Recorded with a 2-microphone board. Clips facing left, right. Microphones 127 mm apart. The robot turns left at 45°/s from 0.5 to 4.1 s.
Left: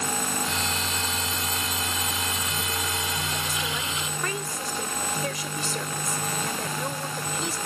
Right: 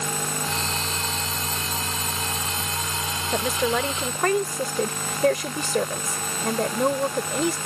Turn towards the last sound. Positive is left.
turn(degrees=-115)